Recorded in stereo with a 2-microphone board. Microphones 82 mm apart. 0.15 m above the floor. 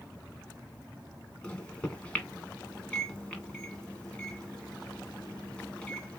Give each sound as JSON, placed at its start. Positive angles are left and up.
{"t": 1.4, "sound": "a microwave", "side_deg": 15, "distance_m": 0.8}